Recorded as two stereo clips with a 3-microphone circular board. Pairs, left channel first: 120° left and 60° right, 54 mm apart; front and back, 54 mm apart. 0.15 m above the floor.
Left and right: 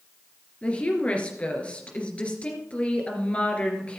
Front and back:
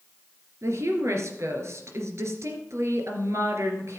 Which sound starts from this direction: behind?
A woman speaking, at 0.6 s.